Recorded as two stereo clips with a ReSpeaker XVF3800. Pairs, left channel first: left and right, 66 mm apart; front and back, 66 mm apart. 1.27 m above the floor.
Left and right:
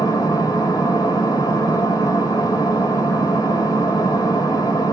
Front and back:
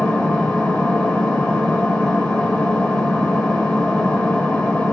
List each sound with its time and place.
0.0 s an engine running: 70° left, 2.5 m